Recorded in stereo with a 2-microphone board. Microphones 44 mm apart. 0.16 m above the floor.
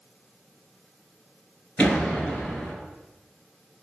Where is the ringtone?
No ringtone in this recording.